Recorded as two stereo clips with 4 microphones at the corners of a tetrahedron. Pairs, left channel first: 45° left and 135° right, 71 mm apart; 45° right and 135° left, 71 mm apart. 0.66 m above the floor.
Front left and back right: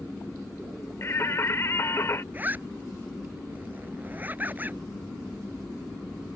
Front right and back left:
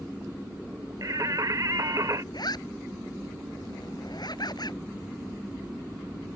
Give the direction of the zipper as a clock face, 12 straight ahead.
2 o'clock.